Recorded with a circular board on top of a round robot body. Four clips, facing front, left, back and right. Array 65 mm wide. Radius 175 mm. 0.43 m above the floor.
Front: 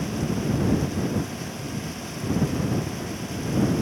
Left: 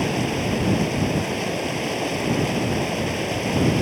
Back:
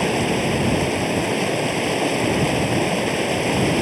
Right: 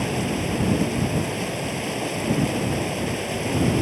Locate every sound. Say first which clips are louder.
0.0 s running water: left 2 dB, back 7 dB; 175° left